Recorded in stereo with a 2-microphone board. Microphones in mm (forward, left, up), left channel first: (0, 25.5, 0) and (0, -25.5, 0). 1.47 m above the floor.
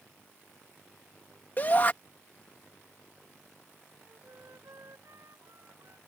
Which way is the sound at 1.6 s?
40° left (ahead or behind).